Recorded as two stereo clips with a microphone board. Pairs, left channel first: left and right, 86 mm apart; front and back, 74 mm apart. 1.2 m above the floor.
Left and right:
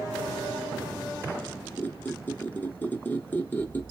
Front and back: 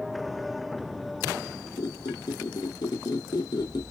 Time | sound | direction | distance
1.8 | a squeak | 20° left | 0.7 m